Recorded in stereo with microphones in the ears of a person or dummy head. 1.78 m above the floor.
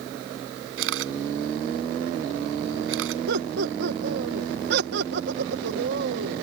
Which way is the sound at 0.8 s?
80° right.